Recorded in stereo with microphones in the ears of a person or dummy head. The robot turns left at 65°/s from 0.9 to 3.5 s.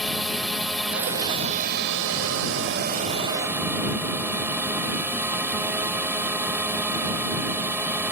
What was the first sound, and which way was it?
A drone, 5° left.